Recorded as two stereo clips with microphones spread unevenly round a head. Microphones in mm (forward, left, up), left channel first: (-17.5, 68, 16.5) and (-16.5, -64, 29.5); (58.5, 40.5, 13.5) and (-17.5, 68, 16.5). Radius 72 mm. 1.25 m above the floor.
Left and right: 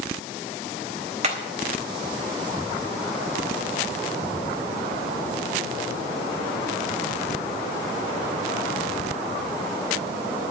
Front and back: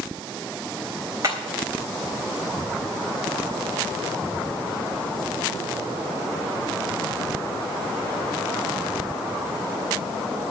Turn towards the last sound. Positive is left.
turn(degrees=-130)